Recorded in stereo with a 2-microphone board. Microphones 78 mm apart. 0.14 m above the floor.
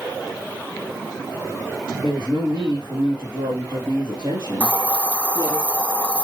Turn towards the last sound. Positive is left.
turn(degrees=15)  # may be behind; listen again after turning